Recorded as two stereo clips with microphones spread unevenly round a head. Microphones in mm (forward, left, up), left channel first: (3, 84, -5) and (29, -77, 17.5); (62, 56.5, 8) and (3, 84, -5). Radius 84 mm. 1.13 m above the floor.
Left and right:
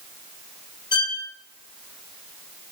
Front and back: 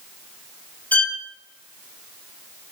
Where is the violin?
35° left, 0.5 m.